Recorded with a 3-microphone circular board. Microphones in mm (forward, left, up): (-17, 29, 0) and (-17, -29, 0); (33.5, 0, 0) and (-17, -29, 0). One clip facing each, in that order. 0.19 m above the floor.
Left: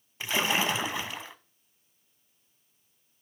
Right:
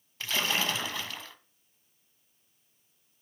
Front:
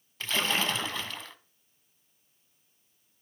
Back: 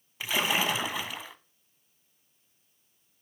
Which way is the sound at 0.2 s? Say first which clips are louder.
Left 3 dB, back 1 dB; 145° left.